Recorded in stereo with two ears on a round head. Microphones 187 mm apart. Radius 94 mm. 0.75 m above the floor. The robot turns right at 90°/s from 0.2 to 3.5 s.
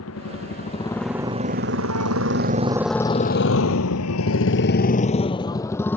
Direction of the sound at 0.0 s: 80° left.